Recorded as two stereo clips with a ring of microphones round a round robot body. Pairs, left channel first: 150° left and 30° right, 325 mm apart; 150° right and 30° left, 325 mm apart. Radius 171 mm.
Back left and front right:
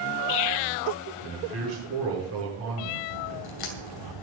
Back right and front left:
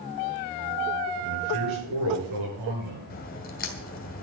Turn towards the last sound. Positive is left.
turn(degrees=145)